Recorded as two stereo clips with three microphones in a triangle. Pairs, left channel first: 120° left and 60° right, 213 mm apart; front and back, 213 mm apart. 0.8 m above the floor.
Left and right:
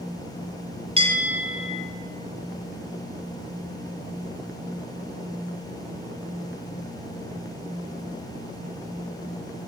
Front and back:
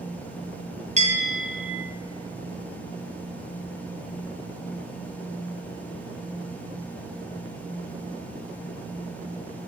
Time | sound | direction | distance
1.0 | a bell | 125° right | 2.5 m